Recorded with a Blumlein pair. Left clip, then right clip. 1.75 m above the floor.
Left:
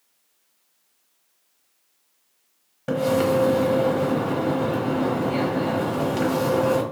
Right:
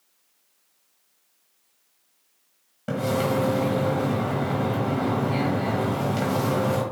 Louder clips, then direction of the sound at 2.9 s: Left 4 dB; 10° left.